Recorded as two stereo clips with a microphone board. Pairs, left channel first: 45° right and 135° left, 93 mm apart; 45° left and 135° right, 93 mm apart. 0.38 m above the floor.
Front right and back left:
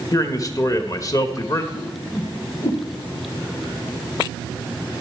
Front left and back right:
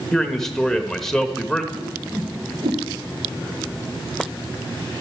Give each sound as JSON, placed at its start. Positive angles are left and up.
{"t": 0.1, "sound": "a man speaking", "azimuth_deg": -40, "distance_m": 1.0}
{"t": 1.7, "sound": "a whoosh", "azimuth_deg": -100, "distance_m": 1.6}